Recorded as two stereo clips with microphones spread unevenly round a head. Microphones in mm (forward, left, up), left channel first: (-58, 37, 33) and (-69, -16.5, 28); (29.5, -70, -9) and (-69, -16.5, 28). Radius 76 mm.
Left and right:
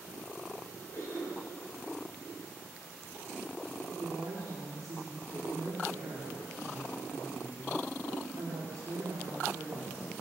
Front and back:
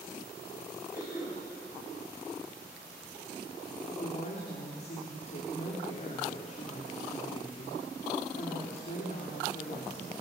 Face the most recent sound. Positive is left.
turn(degrees=-55)